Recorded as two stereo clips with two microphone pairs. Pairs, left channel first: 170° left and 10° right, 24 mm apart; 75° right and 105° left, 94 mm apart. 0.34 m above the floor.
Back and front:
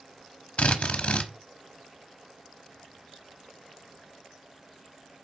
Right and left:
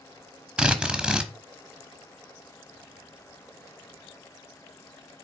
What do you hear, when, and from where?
0.6 s a drill: 175° right, 1.0 m